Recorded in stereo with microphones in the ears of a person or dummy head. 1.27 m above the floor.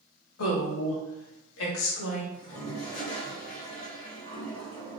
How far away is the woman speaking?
About 1.0 m.